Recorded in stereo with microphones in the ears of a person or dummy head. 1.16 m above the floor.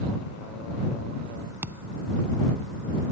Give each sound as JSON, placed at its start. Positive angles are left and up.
{"t": 1.6, "sound": "a thud", "side_deg": -10}